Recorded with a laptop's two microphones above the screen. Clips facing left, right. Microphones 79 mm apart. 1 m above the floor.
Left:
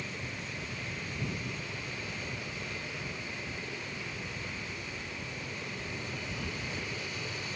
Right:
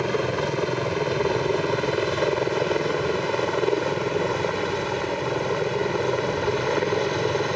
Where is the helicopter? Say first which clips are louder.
Right 18 dB; 70° right (ahead or behind); by 7.6 s 65° right (ahead or behind).